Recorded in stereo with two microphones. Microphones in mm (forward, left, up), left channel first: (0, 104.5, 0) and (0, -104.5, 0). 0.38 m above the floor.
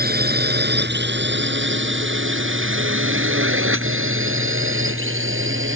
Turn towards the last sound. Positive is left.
turn(degrees=-75)  # may be behind; listen again after turning